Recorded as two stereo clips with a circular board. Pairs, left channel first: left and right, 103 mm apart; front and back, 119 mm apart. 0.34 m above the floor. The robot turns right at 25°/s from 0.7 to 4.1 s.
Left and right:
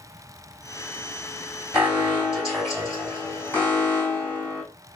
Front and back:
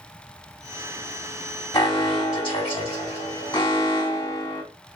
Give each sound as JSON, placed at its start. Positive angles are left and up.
{"t": 1.7, "sound": "an alarm", "azimuth_deg": -20, "distance_m": 2.5}